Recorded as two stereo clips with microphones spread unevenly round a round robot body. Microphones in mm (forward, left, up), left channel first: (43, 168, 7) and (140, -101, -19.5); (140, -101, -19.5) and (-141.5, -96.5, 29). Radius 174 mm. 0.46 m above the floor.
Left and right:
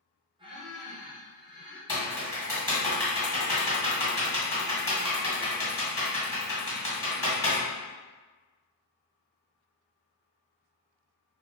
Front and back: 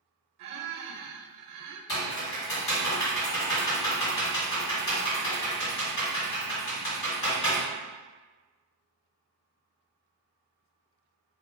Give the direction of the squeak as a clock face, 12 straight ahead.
5 o'clock.